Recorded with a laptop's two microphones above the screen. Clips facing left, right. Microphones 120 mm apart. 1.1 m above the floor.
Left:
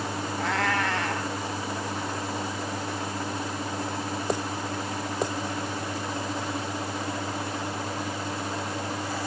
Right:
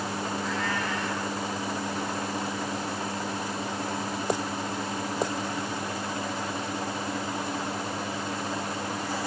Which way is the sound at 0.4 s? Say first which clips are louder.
Left 7 dB; 80° left.